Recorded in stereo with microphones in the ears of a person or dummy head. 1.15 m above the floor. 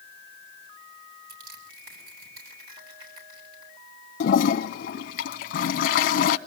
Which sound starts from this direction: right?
Crushing, at 1.3 s.